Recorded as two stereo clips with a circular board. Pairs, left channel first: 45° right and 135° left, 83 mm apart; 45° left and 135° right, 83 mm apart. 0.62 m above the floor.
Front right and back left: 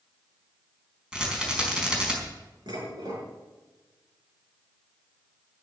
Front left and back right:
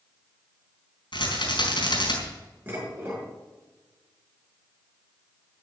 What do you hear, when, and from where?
1.1 s a rattle: 60° left, 4.5 m
2.7 s dishes clattering: 160° left, 6.5 m